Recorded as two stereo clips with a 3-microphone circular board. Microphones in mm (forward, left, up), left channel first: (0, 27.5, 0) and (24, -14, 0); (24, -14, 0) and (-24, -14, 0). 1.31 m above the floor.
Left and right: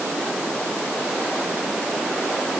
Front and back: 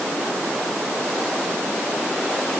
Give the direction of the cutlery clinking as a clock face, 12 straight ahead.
No cutlery clinking in this recording.